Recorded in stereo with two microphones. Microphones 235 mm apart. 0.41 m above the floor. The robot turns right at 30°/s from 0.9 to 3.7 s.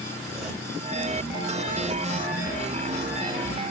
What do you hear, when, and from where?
0.1 s a zipper: centre (ahead or behind), 1.3 m; by 2.1 s 20° right (ahead or behind), 1.3 m